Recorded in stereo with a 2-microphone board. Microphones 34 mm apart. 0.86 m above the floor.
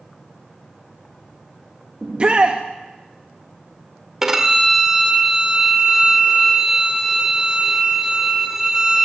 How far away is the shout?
About 0.7 m.